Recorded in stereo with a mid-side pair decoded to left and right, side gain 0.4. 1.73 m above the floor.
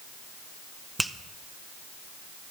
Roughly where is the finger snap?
Ahead.